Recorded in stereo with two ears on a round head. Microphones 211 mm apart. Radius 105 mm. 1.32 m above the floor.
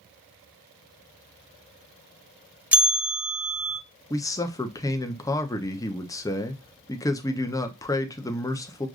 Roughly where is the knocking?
No knocking in this recording.